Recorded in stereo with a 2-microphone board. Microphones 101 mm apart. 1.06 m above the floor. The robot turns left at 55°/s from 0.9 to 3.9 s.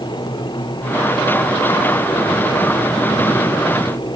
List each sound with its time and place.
Only background noise.